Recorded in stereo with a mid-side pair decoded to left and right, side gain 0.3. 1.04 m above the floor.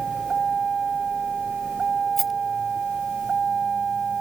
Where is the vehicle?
60° right.